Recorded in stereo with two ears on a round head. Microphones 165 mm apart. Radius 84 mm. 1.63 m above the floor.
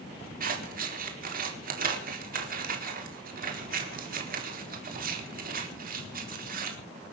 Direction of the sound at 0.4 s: 50° right (ahead or behind).